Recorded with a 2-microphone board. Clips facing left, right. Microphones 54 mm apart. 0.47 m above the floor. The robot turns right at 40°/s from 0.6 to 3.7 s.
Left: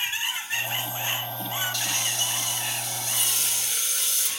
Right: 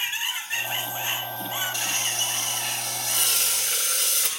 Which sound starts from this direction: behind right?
Frying, at 1.7 s.